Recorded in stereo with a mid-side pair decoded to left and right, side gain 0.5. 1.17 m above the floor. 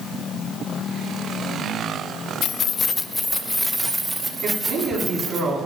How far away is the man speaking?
About 8 m.